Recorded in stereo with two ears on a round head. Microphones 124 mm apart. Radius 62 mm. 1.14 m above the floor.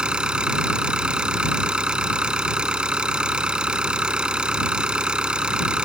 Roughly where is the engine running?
Centre.